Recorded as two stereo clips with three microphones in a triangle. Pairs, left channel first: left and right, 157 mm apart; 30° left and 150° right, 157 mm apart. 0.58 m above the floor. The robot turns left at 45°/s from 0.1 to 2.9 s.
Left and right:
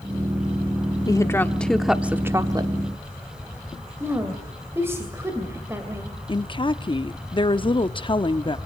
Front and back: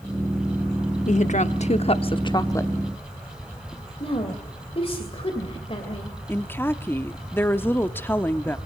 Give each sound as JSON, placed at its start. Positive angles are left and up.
{"t": 1.1, "sound": "a woman speaking", "azimuth_deg": 35, "distance_m": 1.0}
{"t": 4.0, "sound": "a woman speaking", "azimuth_deg": -20, "distance_m": 2.5}
{"t": 6.3, "sound": "a woman speaking", "azimuth_deg": 95, "distance_m": 0.7}